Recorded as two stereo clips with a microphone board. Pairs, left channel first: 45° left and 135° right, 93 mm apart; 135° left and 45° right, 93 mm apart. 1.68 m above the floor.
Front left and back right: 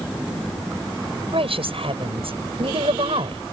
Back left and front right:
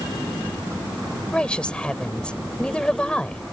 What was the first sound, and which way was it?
A woman speaking, 145° right.